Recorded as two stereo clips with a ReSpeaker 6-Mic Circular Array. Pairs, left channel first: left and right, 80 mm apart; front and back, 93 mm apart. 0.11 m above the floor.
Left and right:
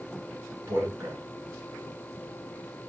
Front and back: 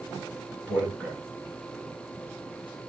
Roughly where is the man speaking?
Ahead right.